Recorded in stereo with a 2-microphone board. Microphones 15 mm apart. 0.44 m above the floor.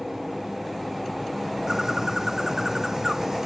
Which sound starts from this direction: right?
A bird, at 1.7 s.